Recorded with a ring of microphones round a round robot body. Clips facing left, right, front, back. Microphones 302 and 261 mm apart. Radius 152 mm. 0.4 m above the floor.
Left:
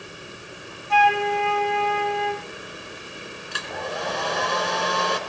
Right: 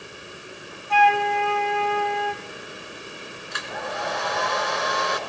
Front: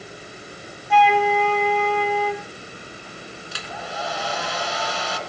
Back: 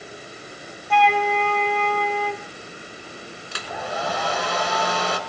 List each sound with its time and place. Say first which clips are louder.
0.9 s a flute: even, front 2 dB; 90° left, 2.5 m
3.5 s a hair dryer: left 1 dB, back 5 dB; 145° left, 2.5 m